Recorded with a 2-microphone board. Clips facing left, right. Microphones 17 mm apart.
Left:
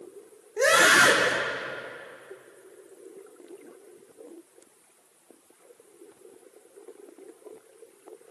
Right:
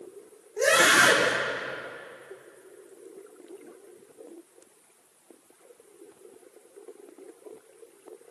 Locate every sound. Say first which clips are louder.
0.6 s a scream: left 1 dB; 75° left (ahead or behind), 8 m